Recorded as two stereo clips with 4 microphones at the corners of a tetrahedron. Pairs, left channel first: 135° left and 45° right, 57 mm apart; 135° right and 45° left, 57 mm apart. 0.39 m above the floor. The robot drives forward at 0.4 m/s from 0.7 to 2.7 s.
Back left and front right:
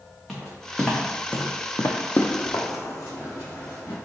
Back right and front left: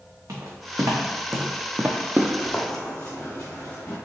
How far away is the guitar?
No guitar in this recording.